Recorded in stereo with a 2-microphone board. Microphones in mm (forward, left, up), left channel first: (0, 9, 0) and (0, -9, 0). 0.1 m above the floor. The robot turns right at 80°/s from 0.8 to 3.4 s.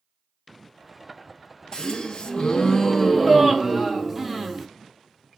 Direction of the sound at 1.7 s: 60° left.